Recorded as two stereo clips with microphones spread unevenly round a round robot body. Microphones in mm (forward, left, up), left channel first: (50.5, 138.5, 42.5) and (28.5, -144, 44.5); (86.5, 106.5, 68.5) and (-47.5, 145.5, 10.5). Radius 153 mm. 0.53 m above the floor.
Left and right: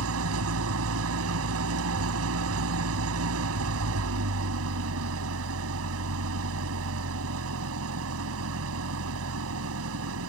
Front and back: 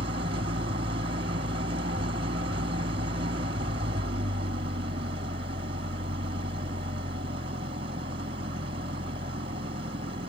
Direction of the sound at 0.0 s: 140° right.